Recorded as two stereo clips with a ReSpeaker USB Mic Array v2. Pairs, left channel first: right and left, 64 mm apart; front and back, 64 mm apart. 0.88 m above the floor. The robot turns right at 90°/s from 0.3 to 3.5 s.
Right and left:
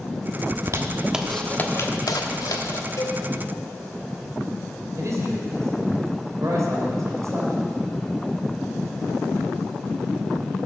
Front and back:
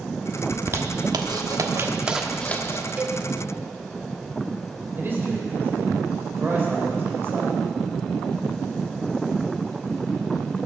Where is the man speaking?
125° left, 3.5 m.